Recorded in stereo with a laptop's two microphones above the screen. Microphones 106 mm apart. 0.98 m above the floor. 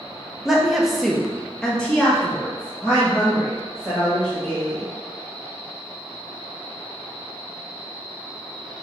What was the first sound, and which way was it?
A woman speaking, 5° right (ahead or behind).